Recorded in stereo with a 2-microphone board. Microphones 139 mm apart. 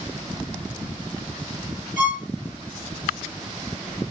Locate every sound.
2.0 s a violin: 70° left (ahead or behind), 2.5 m